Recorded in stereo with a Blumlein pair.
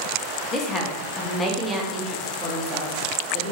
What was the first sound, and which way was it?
A woman speaking, 25° left.